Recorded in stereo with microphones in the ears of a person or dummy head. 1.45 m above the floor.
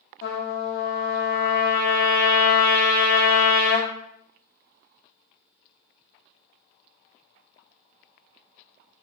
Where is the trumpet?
55° left (ahead or behind), 0.6 m.